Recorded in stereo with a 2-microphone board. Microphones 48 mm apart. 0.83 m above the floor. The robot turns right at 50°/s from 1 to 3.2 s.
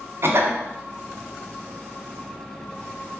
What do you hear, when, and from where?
0.2 s a cough: 55° right (ahead or behind), 0.6 m